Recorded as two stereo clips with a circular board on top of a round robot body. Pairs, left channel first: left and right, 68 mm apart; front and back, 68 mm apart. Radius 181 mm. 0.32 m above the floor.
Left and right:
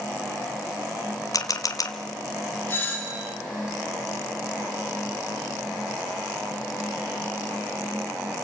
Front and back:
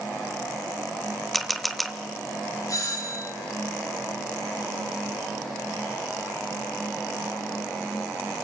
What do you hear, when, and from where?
1.3 s a camera shutter: 90° left, 1.7 m
2.7 s a doorbell: 25° left, 4.5 m